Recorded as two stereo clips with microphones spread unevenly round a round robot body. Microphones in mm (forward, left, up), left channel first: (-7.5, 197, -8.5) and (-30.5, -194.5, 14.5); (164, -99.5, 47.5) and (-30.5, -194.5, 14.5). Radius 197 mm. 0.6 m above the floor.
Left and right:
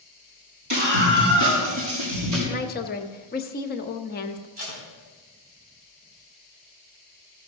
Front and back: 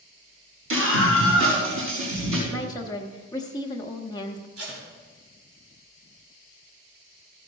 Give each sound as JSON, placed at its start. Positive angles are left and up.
{"t": 0.7, "sound": "a scream", "azimuth_deg": -135, "distance_m": 3.5}
{"t": 2.5, "sound": "a woman speaking", "azimuth_deg": 95, "distance_m": 0.6}
{"t": 4.6, "sound": "tape being pulled", "azimuth_deg": -165, "distance_m": 3.5}